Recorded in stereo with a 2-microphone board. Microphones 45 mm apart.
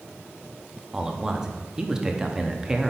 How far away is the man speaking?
About 0.6 m.